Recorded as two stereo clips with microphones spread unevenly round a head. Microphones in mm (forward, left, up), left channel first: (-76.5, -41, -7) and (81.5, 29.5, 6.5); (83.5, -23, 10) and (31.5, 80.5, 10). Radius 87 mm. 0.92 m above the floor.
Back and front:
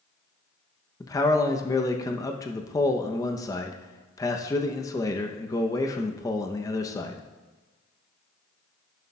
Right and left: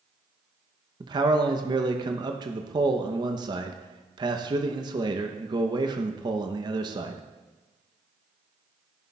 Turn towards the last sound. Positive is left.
turn(degrees=150)